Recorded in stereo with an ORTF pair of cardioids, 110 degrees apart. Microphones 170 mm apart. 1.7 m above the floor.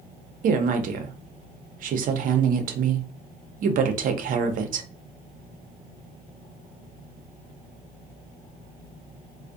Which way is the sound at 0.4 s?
55° right.